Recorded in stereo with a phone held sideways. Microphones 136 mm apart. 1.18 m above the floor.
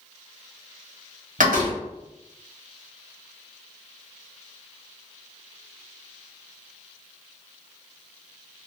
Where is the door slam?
75° right (ahead or behind), 1.2 m.